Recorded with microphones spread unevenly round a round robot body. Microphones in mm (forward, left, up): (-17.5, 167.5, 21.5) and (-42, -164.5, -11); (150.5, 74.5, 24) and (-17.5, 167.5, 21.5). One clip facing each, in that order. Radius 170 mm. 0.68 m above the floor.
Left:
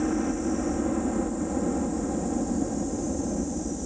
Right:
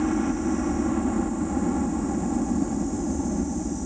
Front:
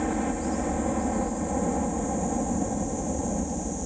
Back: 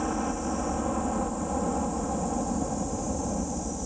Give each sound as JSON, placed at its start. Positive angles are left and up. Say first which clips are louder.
{"t": 0.0, "sound": "a helicopter", "louder": "right 2 dB, front 2 dB", "azimuth_deg": -90}